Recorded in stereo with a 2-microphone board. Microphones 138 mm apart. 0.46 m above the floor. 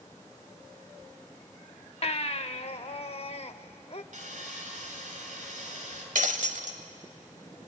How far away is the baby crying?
About 0.7 m.